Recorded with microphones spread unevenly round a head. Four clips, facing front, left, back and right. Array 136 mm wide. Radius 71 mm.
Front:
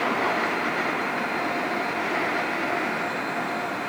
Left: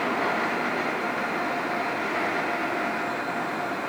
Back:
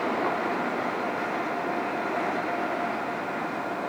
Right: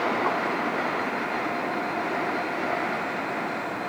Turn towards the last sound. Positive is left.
No sound to turn to.